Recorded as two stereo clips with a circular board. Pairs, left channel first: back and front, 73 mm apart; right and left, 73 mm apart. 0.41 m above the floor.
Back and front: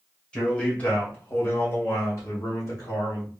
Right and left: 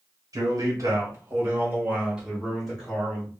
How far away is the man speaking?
About 1.5 m.